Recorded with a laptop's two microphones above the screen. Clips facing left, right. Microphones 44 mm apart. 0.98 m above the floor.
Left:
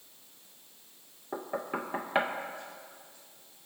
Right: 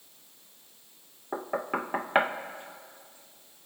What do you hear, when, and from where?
1.3 s knocking: 25° right (ahead or behind), 0.7 m